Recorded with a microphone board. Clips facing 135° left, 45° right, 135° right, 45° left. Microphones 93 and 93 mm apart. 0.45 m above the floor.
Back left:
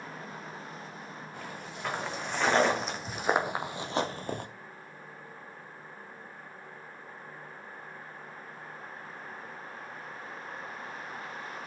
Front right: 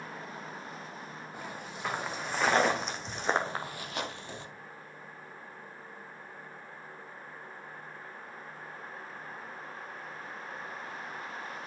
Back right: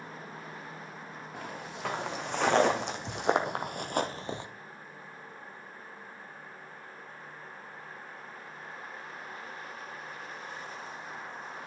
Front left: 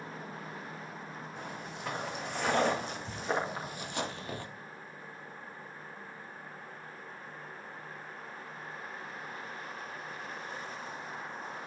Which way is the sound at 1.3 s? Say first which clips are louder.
Front right 1 dB, back right 4 dB; 125° right.